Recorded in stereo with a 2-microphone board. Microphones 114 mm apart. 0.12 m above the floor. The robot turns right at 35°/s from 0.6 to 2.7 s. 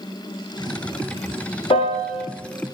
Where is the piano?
55° left (ahead or behind), 1.2 m; by 2.2 s 70° left (ahead or behind), 1.2 m.